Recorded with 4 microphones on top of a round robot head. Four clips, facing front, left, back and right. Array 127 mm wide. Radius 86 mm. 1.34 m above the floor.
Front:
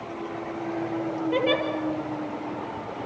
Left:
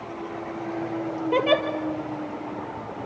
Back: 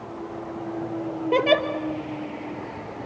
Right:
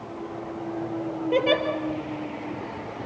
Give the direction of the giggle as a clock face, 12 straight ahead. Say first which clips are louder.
Left 1 dB, back 5 dB; 6 o'clock.